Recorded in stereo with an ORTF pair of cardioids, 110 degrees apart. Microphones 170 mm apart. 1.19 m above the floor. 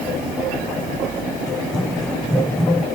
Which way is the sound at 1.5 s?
5° left.